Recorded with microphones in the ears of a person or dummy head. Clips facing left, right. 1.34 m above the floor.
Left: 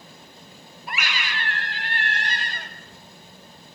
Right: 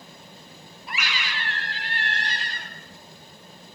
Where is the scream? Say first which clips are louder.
Left 2 dB; 45° left (ahead or behind), 3.5 m.